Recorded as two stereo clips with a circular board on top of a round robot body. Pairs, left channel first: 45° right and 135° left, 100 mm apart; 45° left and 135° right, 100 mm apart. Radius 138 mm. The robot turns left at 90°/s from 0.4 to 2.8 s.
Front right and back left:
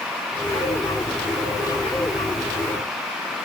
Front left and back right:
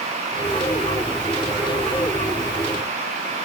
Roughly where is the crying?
I don't hear crying.